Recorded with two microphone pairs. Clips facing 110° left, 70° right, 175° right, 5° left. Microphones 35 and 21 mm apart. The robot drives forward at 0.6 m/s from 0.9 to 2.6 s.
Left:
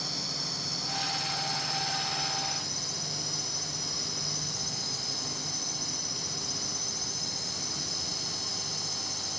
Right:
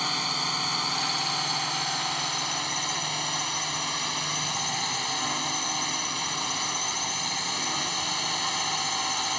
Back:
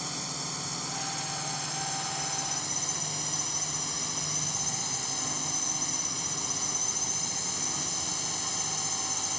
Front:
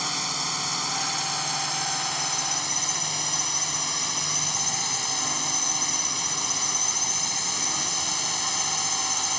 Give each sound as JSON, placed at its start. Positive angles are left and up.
{"t": 0.0, "sound": "a drone", "azimuth_deg": -40}